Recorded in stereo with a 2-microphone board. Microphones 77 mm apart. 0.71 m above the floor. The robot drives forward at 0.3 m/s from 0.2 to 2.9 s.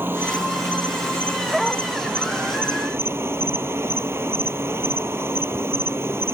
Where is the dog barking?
Centre (ahead or behind).